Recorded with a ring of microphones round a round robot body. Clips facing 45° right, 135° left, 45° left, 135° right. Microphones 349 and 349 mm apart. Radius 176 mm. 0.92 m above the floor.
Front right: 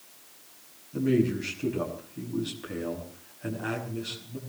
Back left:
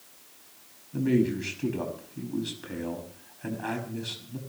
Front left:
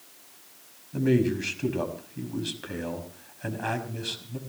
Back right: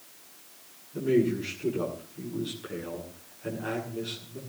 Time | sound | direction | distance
0.9 | a man speaking | 55° left | 5.5 m